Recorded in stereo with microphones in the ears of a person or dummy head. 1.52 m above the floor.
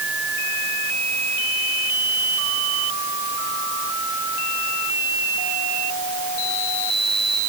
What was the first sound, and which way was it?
Only background noise.